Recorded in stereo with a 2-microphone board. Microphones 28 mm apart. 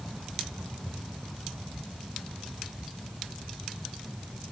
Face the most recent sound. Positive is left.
No sound to turn to.